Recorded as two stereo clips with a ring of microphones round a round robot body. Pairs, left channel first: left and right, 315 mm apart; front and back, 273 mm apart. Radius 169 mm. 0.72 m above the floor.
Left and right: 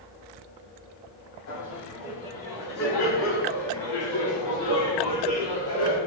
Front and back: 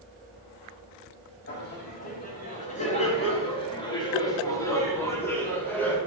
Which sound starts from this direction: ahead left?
Laughter, at 1.5 s.